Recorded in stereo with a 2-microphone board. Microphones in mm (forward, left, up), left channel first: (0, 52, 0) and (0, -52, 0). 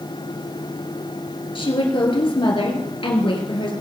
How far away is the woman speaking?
About 3 m.